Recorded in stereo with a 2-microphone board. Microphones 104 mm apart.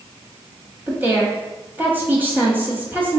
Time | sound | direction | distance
0.9 | a woman speaking | 20° right (ahead or behind) | 1.0 m